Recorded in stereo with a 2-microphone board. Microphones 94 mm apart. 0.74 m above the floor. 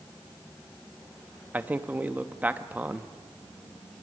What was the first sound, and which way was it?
A man speaking, 15° right (ahead or behind).